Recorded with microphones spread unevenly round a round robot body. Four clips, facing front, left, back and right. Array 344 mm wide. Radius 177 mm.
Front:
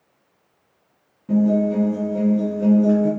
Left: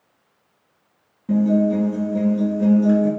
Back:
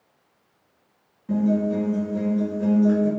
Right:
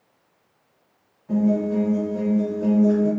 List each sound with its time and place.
1.3 s a guitar: 70° left, 3 m